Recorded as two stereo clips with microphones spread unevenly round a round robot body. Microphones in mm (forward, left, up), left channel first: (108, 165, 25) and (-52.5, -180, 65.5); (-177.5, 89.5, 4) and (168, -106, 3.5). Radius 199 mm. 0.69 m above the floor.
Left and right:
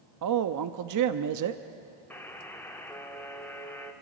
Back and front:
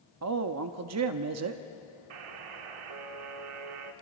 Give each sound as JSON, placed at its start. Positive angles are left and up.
{"t": 0.2, "sound": "a woman speaking", "azimuth_deg": -75, "distance_m": 0.7}
{"t": 2.1, "sound": "a buzzer", "azimuth_deg": -20, "distance_m": 1.2}